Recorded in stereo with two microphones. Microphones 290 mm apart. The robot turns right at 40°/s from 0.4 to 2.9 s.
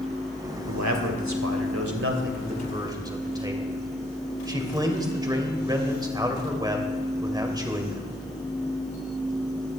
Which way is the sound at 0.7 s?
105° right.